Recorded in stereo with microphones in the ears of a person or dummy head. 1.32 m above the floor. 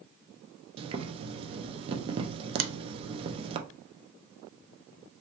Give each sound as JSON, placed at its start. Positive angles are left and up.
{"t": 0.8, "sound": "boiling", "side_deg": -25, "distance_m": 0.6}
{"t": 2.6, "sound": "a finger snap", "side_deg": -60, "distance_m": 0.6}